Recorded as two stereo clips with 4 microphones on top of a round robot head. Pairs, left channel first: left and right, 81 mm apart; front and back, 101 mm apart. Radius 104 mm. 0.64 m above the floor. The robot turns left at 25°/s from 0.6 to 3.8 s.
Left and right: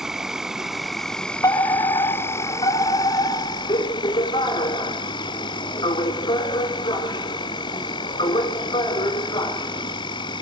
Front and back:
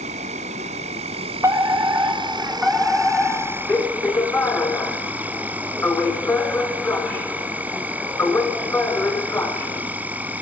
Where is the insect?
175° right, 0.8 m; by 10.4 s 105° left, 0.8 m.